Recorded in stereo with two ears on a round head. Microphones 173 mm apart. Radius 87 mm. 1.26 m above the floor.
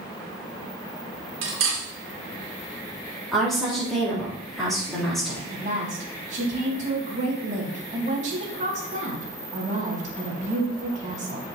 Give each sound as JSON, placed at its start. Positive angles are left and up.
{"t": 1.4, "sound": "cutlery clinking", "side_deg": -70, "distance_m": 2.5}
{"t": 3.3, "sound": "a woman speaking", "side_deg": 0, "distance_m": 3.5}
{"t": 5.5, "sound": "a woman speaking", "side_deg": -40, "distance_m": 2.5}